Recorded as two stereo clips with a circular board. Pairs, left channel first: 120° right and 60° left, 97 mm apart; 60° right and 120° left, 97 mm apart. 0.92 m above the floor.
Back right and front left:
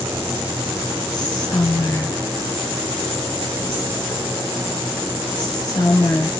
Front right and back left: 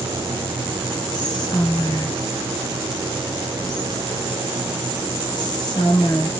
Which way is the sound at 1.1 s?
90° right.